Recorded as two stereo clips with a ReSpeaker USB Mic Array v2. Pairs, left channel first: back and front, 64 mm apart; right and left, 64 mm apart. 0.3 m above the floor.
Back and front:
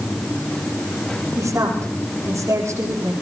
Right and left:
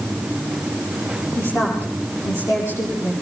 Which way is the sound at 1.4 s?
40° right.